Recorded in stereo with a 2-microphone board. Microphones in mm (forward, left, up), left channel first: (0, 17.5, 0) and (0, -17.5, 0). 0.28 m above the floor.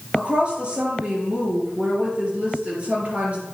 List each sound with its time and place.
0.1 s a woman speaking: 30° right (ahead or behind), 4 m